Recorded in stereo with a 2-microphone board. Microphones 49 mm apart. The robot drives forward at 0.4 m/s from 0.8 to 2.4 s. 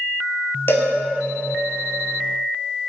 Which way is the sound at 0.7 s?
55° left (ahead or behind).